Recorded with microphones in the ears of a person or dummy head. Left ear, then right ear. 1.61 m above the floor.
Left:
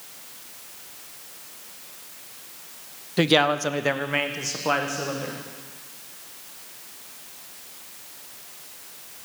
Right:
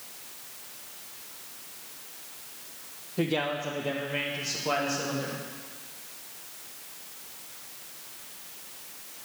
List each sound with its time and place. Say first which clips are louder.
3.2 s a man speaking: left 9 dB; 65° left (ahead or behind), 0.6 m; by 5.4 s 20° left (ahead or behind), 1.5 m